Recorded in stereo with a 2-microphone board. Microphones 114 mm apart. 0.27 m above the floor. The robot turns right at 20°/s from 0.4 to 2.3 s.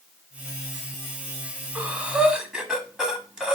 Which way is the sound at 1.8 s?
15° right (ahead or behind).